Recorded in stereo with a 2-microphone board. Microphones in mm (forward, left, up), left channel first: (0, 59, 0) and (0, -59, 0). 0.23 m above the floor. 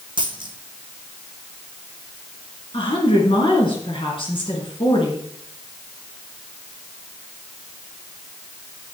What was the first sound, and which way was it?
A dropped coin, 40° right (ahead or behind).